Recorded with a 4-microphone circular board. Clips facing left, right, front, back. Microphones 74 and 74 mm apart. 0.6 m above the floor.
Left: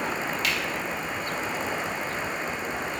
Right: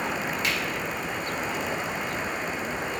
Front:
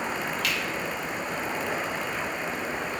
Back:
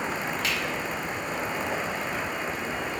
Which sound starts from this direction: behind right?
A finger snap, at 0.4 s.